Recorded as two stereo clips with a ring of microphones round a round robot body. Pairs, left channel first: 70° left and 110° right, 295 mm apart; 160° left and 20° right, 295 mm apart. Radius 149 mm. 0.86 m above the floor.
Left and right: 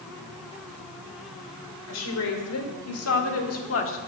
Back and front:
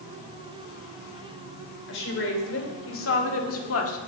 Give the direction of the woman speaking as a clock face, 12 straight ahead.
8 o'clock.